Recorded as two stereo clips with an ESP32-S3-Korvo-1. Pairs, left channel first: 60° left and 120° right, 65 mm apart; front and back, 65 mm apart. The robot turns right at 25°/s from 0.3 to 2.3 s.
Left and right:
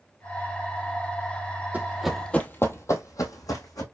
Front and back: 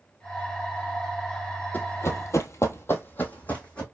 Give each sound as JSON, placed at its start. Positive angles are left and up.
{"t": 1.7, "sound": "running footsteps", "azimuth_deg": -60, "distance_m": 0.7}